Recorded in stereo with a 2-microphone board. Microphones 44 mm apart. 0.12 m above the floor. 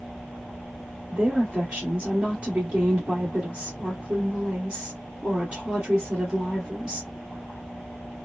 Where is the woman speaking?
25° right (ahead or behind), 1.4 m.